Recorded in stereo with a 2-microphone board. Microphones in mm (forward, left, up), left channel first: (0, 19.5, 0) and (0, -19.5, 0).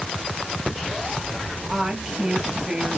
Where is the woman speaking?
20° right (ahead or behind), 1.6 m.